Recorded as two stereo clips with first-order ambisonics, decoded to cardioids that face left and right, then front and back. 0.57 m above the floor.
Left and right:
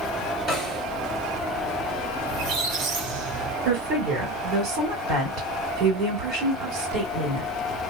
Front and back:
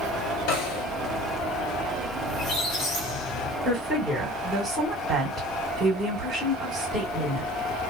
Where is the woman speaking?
95° right, 1.6 m.